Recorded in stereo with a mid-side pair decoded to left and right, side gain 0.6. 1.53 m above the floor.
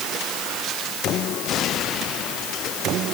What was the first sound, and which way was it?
Only background noise.